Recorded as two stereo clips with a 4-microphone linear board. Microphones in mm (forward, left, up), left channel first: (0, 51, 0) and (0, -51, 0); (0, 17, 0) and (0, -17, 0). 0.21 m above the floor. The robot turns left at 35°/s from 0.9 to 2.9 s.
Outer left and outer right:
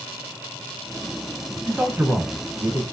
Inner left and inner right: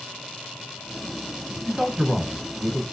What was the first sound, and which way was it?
A man speaking, 15° right (ahead or behind).